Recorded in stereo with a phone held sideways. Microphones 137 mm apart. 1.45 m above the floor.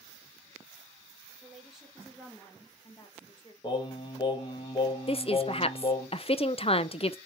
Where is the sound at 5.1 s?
45° left (ahead or behind), 0.6 m.